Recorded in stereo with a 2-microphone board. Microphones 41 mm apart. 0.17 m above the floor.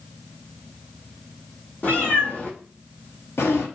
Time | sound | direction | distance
1.8 | a cat meowing | 35° left (ahead or behind) | 1.2 m